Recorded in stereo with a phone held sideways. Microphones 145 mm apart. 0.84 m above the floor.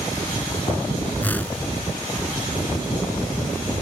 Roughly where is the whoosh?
Centre.